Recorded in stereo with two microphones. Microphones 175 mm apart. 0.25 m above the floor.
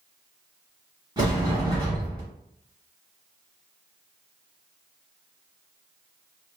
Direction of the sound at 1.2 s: 25° right (ahead or behind).